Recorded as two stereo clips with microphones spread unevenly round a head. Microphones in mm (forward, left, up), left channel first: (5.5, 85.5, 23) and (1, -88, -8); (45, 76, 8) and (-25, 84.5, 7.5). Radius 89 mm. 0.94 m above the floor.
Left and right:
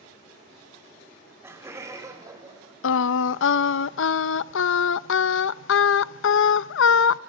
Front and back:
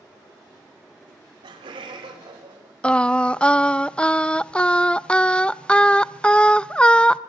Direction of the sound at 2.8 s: 70° left.